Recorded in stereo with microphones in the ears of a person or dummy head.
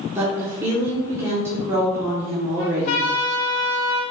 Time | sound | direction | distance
0.1 | a woman speaking | 15° right (ahead or behind) | 0.8 m
2.6 | a trumpet | 50° left (ahead or behind) | 1.4 m